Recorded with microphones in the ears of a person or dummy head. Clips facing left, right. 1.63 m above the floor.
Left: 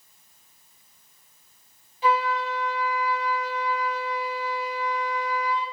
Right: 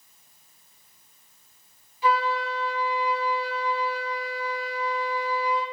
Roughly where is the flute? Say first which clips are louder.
Left 1 dB; left.